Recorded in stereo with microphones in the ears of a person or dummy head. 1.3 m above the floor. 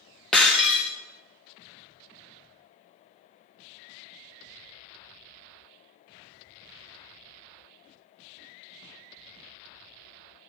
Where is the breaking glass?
Centre (ahead or behind), 0.6 m.